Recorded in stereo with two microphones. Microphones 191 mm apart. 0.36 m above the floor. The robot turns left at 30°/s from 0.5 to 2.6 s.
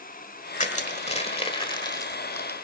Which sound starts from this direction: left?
Crushing, at 0.6 s.